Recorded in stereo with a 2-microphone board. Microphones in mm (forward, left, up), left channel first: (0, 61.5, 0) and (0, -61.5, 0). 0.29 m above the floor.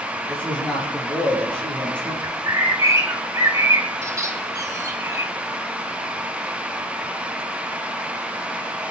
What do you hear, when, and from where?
0.3 s a man speaking: 10° left (ahead or behind), 6.5 m
2.2 s a bird: 25° right (ahead or behind), 1.8 m